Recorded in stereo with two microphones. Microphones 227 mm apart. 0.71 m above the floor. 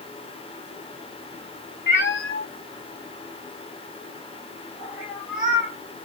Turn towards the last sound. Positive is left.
turn(degrees=-5)  # may be behind; listen again after turning